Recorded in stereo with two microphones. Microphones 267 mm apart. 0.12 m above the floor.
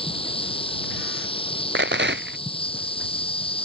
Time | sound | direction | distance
0.0 | an insect | 20° left (ahead or behind) | ?
1.8 | a rattle | 45° right (ahead or behind) | ?